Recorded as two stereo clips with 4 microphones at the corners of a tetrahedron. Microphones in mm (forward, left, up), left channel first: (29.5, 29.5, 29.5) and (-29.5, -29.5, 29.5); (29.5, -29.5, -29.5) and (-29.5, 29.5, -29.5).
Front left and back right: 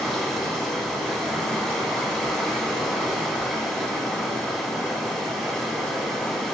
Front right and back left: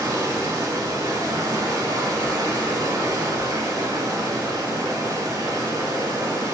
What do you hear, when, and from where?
0.0 s running water: 125° left, 0.8 m